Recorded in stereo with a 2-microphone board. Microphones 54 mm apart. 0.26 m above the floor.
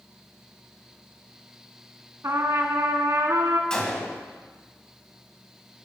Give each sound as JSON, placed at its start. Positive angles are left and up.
{"t": 2.2, "sound": "a trumpet", "side_deg": -65, "distance_m": 1.1}
{"t": 3.7, "sound": "a gunshot", "side_deg": 15, "distance_m": 1.9}